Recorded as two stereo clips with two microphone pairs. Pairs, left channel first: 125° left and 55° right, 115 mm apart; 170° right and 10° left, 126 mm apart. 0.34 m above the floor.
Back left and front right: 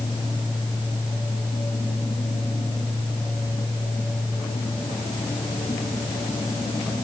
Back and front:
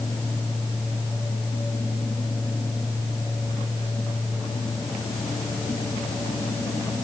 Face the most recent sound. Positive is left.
No sound to turn to.